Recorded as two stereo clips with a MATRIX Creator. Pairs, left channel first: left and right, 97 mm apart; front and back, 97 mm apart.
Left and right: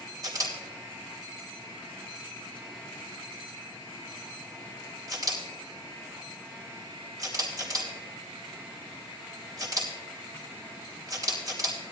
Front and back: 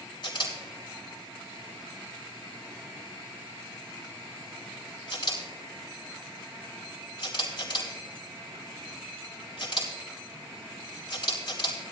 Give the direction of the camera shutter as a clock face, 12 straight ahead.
1 o'clock.